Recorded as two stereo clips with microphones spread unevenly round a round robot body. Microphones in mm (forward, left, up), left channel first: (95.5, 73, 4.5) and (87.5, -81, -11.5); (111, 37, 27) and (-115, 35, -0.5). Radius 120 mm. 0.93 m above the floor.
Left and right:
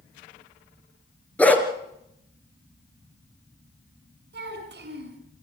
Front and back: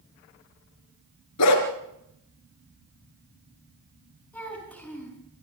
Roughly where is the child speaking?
Right.